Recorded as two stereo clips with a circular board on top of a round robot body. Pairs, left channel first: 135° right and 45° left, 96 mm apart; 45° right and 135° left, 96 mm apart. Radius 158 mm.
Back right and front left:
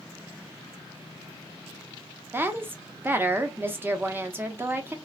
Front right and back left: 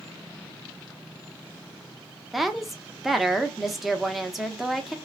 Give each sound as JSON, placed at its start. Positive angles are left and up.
{"t": 2.3, "sound": "a woman speaking", "azimuth_deg": 50, "distance_m": 0.8}